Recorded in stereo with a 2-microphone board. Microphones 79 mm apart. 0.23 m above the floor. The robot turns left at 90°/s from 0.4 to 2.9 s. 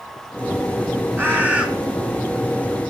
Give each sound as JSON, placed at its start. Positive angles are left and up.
{"t": 1.2, "sound": "a bird", "side_deg": -25, "distance_m": 1.7}